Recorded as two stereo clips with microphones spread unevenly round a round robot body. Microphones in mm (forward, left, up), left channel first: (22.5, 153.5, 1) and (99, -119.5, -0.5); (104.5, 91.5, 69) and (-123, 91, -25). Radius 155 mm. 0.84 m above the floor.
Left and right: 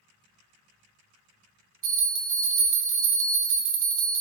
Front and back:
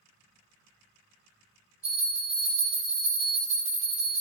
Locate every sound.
1.8 s a bell: 115° right, 1.5 m